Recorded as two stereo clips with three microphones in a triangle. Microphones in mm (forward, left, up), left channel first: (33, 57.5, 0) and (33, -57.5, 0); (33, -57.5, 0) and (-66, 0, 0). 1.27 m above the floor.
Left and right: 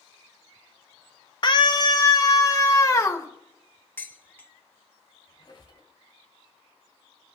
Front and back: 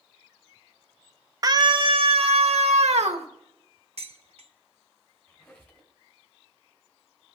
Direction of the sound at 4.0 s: 160° left.